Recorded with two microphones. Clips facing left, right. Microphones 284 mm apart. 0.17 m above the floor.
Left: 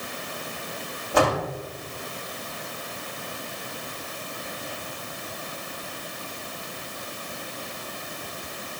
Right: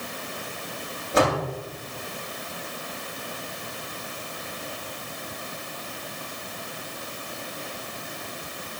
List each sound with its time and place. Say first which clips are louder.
1.1 s a door slam: even; 25° right (ahead or behind), 8 m